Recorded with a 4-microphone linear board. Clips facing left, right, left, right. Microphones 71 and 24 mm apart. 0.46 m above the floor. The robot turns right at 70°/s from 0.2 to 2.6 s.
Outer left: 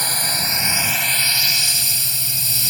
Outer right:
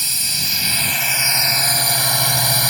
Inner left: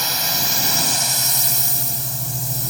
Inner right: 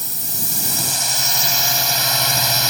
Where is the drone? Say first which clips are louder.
Outer left 5 dB, inner left 8 dB; 125° left; by 2.7 s 65° right.